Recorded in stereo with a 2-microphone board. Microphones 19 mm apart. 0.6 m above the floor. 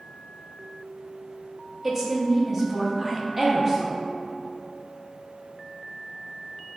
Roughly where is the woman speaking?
Right.